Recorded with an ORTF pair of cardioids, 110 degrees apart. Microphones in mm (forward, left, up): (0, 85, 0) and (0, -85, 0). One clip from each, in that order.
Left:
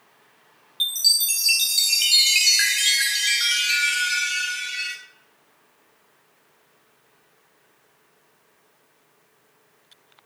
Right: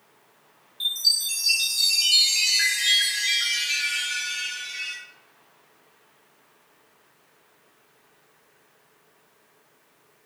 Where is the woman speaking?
I don't hear a woman speaking.